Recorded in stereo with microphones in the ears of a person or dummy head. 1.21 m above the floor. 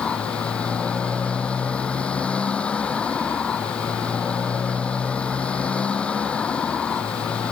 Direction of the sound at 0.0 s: 5° left (ahead or behind).